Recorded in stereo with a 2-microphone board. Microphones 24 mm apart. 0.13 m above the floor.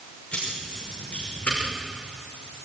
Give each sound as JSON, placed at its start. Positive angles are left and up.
{"t": 0.3, "sound": "keys jangling", "side_deg": 55, "distance_m": 8.5}